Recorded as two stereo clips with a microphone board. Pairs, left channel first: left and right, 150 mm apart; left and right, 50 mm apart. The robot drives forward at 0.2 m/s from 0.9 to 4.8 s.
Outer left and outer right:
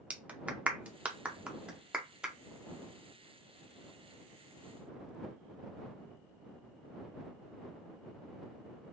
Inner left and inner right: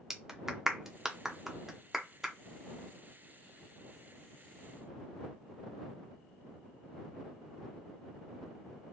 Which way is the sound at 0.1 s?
10° right (ahead or behind).